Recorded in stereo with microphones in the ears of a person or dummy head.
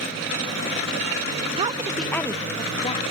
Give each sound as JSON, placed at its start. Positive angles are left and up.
{"t": 1.6, "sound": "a woman speaking", "side_deg": -40, "distance_m": 0.8}